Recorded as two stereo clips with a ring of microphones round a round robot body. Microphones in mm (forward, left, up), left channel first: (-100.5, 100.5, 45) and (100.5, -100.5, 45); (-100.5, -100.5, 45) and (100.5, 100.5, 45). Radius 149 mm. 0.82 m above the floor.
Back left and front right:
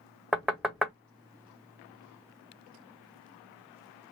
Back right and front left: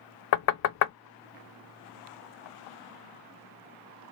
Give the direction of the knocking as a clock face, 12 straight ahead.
4 o'clock.